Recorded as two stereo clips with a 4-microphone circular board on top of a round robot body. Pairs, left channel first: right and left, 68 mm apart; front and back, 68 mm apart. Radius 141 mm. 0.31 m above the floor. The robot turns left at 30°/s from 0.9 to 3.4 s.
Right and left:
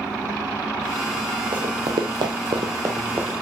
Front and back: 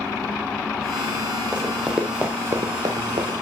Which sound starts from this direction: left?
Running footsteps, at 1.5 s.